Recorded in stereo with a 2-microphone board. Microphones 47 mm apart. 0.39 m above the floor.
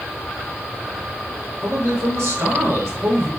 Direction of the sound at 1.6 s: 75° right (ahead or behind).